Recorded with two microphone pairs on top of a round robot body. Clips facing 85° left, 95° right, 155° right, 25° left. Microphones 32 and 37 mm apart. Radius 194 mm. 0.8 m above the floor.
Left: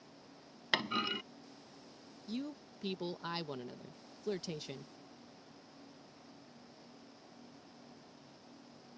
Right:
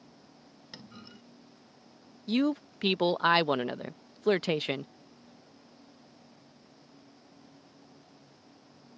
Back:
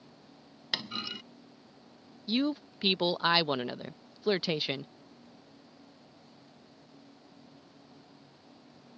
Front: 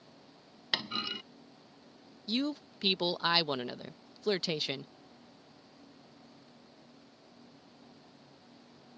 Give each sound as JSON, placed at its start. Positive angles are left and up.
{"t": 0.7, "sound": "a clunk", "azimuth_deg": 105}
{"t": 2.3, "sound": "a man speaking", "azimuth_deg": -80}